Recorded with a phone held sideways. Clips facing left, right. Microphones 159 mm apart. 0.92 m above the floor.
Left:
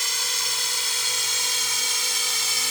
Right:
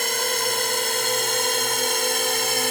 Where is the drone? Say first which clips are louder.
Right 12 dB; 55° right (ahead or behind); by 2.7 s 60° right (ahead or behind).